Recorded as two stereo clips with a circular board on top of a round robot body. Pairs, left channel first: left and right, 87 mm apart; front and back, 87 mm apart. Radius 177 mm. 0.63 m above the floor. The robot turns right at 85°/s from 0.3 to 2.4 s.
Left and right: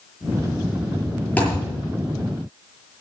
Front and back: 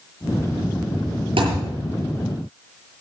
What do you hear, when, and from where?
1.4 s a thud: 165° left, 7.5 m; by 1.7 s 165° right, 7.5 m